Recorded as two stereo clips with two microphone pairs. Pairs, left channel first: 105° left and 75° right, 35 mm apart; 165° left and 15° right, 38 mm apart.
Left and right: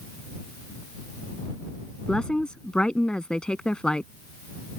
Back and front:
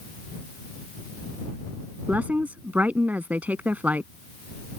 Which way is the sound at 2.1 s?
35° left.